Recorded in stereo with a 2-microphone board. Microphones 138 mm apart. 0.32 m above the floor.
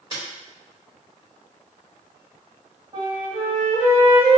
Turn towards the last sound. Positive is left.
turn(degrees=-35)  # may be behind; listen again after turning